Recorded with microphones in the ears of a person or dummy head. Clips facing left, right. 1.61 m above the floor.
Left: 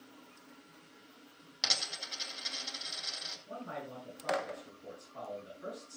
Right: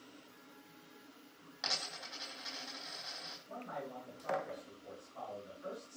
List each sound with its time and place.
1.6 s a dropped coin: 45° left (ahead or behind), 3.5 m
3.5 s a man speaking: 65° left (ahead or behind), 8.5 m